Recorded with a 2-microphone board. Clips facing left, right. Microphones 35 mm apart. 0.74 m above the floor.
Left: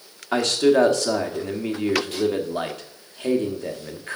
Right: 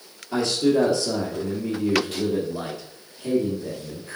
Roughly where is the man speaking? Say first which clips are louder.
Left 3 dB; left.